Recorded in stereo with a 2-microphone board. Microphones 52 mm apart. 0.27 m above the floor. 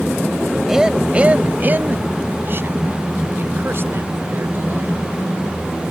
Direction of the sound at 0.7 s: 10° right (ahead or behind).